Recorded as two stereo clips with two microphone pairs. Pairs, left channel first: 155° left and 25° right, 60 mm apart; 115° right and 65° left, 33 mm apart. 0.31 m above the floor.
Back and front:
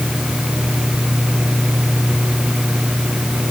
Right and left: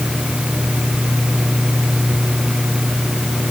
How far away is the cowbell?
No cowbell in this recording.